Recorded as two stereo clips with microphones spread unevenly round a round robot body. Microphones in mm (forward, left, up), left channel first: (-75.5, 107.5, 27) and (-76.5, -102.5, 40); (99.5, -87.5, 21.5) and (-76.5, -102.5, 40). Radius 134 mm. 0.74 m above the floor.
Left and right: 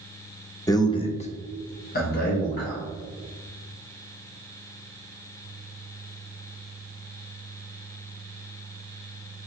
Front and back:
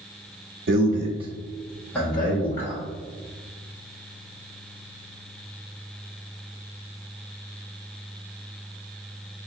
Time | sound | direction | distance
0.7 | a man speaking | 160° left | 0.7 m